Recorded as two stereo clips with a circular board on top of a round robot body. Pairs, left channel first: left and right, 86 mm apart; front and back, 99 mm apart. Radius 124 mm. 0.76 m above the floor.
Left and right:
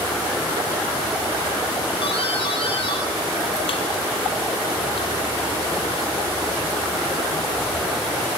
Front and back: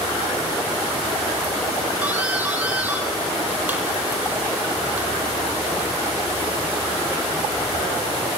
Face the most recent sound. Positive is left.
turn(degrees=105)